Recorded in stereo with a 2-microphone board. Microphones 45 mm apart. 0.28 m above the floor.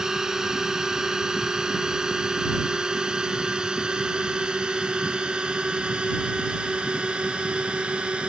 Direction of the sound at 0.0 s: 15° right (ahead or behind).